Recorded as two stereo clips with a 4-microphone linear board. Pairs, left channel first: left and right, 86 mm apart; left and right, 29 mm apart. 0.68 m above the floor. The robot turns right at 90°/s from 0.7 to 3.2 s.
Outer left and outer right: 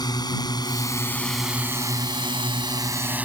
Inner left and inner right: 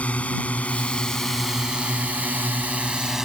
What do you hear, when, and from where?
0.0 s a drone: 60° left (ahead or behind); by 3.2 s 20° right (ahead or behind)